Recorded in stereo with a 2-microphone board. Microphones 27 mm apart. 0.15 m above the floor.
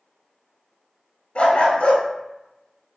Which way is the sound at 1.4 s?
50° left (ahead or behind).